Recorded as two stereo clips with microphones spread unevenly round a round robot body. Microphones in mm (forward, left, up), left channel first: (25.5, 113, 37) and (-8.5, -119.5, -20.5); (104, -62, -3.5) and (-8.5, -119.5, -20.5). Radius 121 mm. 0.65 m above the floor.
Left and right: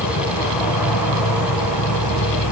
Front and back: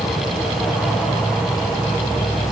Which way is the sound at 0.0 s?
100° left.